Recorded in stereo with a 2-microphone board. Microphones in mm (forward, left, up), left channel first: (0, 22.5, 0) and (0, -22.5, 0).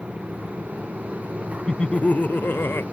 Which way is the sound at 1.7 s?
20° left (ahead or behind).